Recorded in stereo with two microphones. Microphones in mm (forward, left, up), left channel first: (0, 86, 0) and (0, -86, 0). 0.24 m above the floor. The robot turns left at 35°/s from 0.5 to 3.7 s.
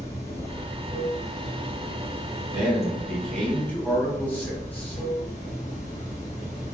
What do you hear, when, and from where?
0.0 s running water: 160° left, 1.9 m; by 6.8 s 50° left, 1.9 m
2.5 s a man speaking: 165° right, 1.1 m; by 5.0 s 155° left, 1.1 m